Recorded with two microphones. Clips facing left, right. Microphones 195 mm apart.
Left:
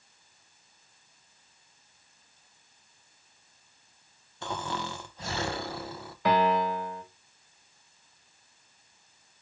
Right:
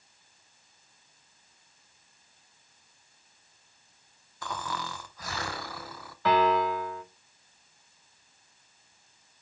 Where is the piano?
15° left (ahead or behind), 2 m.